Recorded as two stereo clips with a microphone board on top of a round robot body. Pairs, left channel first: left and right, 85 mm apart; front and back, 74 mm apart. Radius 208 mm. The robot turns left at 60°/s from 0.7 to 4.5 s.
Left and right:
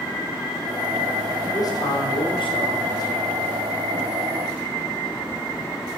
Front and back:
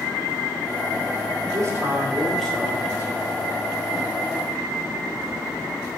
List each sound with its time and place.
1.5 s a man speaking: 140° left, 3 m; by 3.2 s 40° left, 3 m